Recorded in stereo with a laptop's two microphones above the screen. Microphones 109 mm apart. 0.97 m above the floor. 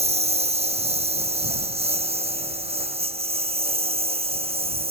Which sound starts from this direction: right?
A lawn mower, at 0.0 s.